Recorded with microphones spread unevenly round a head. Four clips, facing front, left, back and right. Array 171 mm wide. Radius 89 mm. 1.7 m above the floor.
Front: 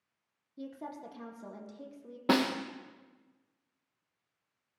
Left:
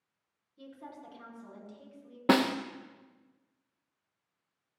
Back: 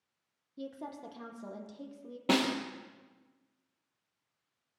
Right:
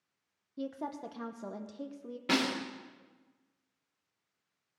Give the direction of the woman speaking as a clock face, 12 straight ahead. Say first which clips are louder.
Right 9 dB, even; 3 o'clock.